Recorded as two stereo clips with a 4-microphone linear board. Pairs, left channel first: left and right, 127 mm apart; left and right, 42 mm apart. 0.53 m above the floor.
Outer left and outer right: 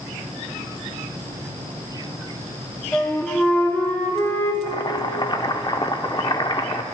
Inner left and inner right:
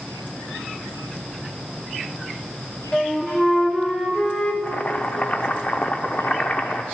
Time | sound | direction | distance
2.9 | a flute | 20° left (ahead or behind) | 1.1 m
4.6 | boiling | 35° left (ahead or behind) | 0.6 m